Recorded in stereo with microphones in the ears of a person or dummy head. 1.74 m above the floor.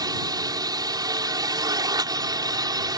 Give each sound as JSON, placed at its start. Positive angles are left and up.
{"t": 0.0, "sound": "a drone", "side_deg": -20}